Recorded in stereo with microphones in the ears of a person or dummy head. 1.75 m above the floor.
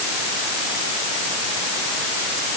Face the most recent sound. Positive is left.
No sound to turn to.